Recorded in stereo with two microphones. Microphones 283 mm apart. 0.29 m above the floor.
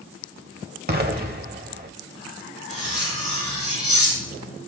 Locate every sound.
0.9 s an explosion: 35° right (ahead or behind), 0.9 m
2.7 s cutlery clinking: 25° left (ahead or behind), 4.5 m